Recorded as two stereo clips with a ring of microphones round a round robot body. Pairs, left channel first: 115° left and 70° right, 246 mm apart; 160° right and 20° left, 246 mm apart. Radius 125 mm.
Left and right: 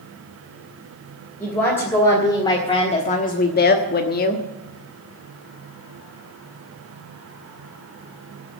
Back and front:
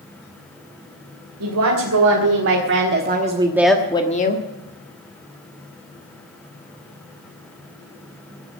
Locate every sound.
1.4 s a woman speaking: 30° left, 3 m; by 4.5 s 160° left, 1.7 m